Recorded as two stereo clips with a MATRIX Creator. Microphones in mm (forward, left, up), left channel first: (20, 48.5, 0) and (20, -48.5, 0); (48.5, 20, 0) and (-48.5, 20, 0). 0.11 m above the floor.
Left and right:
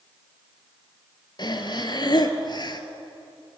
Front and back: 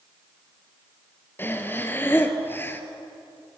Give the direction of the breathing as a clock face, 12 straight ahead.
10 o'clock.